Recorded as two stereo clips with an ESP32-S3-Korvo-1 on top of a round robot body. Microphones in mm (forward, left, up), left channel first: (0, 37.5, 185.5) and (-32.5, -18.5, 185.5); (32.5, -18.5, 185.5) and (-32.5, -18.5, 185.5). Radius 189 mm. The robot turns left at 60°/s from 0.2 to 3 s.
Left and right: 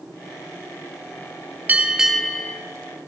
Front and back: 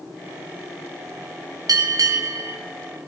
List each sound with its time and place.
1.7 s a bell: straight behind, 1.9 m; by 2.6 s 125° left, 1.9 m